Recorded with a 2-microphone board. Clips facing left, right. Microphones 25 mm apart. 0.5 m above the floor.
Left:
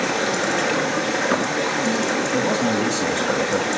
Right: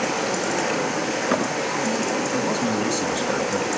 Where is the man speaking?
45° left (ahead or behind), 2.5 m.